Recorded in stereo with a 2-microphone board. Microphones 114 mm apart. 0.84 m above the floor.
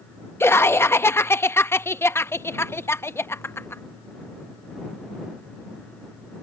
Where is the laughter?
20° left (ahead or behind).